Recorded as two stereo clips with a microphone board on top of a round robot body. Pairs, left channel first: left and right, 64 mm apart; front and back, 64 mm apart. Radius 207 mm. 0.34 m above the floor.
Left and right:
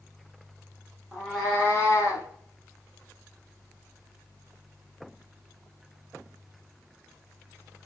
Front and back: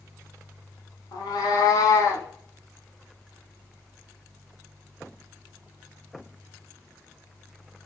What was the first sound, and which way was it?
A cat meowing, 5° right.